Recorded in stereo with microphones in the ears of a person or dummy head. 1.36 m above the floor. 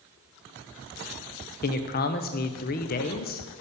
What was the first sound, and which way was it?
A man speaking, 45° left (ahead or behind).